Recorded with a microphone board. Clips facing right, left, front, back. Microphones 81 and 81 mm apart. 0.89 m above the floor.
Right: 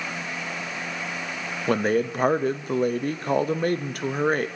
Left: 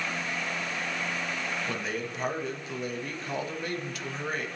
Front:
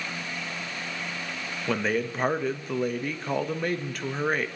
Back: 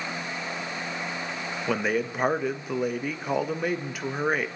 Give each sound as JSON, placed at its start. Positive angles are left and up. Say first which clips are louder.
{"t": 1.7, "sound": "a man speaking", "louder": "right 11 dB, even", "azimuth_deg": -100, "distance_m": 0.7}